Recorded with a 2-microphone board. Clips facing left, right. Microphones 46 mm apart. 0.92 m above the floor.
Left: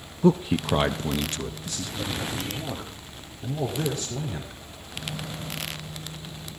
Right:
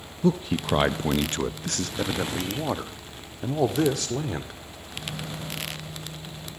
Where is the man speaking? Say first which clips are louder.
Left 3 dB; 25° left (ahead or behind), 0.6 m; by 4.6 s 85° right, 2 m.